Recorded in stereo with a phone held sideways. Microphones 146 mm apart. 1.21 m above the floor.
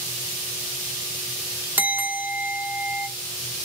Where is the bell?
15° right (ahead or behind), 1.9 m.